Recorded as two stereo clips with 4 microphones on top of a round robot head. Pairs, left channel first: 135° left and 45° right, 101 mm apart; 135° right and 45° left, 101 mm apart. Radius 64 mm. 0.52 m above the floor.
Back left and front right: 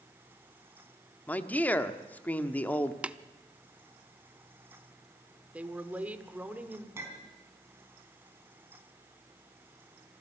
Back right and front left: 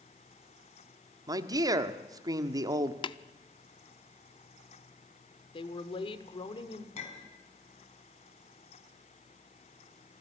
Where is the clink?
115° right, 4 m.